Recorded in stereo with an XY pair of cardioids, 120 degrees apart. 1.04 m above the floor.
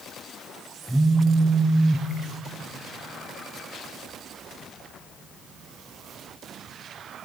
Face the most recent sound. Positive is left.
turn(degrees=-10)